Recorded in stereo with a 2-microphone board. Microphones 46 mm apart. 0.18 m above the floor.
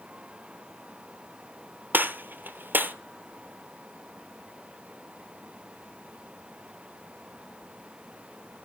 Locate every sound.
1.9 s a gunshot: 45° right (ahead or behind), 1.1 m